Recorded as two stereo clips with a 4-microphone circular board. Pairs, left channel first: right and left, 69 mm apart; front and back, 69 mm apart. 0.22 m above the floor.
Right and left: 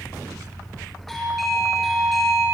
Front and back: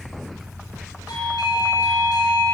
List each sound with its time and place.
1.1 s a doorbell: 5° right, 5.5 m